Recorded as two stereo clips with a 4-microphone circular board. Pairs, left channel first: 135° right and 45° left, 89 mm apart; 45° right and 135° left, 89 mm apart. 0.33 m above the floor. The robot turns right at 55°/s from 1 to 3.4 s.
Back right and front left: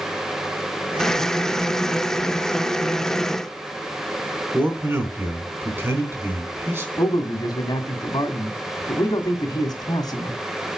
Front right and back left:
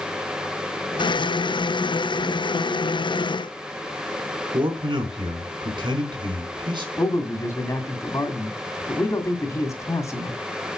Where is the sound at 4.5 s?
110° left, 3.5 m.